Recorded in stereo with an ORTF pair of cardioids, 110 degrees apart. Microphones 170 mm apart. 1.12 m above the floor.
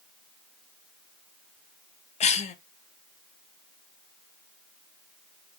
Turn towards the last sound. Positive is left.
turn(degrees=40)